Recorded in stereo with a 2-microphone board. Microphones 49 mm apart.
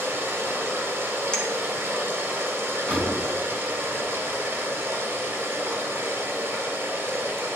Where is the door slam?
10° left (ahead or behind), 4.5 m.